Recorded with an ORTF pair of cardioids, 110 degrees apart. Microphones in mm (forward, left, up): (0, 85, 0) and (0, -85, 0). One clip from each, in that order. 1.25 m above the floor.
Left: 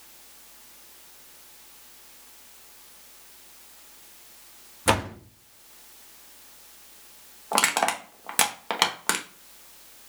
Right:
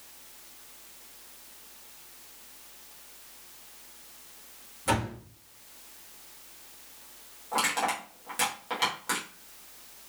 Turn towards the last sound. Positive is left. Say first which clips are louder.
# left 5 dB
turn(degrees=60)